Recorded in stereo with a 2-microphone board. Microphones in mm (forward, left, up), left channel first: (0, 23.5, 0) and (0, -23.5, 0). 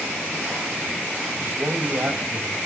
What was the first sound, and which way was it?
A man speaking, 40° right (ahead or behind).